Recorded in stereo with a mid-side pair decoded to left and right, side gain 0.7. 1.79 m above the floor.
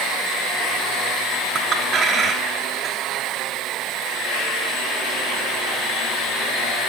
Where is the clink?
35° right, 3.5 m.